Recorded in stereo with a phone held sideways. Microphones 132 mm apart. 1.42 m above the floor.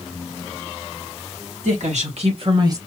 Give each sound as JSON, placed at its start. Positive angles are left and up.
{"t": 1.6, "sound": "a woman speaking", "side_deg": -75, "distance_m": 2.5}